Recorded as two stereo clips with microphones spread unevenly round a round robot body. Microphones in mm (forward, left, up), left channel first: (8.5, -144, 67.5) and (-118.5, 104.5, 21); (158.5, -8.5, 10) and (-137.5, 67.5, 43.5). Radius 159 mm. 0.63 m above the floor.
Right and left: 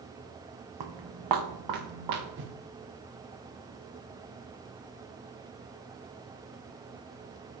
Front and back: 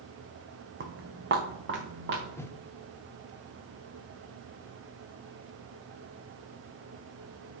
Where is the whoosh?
65° left, 0.7 m.